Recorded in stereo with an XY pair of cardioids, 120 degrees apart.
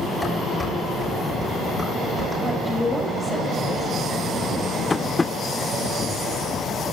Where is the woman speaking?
15° left, 6.5 m.